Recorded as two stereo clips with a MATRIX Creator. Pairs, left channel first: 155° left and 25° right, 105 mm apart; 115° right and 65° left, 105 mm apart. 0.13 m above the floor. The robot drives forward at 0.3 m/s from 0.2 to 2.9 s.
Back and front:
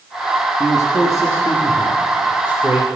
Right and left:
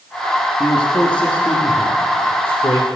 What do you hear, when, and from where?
0.6 s a man speaking: straight behind, 1.8 m